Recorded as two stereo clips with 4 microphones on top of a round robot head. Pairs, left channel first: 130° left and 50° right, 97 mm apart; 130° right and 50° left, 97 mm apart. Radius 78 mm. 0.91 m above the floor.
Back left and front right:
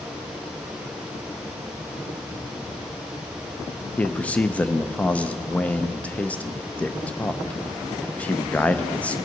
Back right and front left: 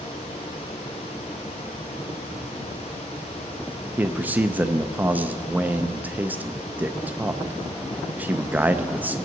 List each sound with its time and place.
4.0 s a man speaking: 80° left, 0.6 m